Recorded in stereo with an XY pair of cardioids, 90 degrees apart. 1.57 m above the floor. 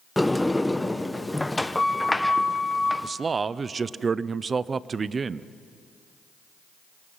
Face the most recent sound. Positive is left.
turn(degrees=-40)